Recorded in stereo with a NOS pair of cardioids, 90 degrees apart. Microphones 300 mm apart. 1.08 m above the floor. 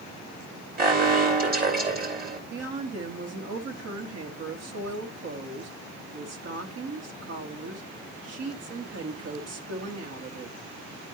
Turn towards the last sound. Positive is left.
turn(degrees=-55)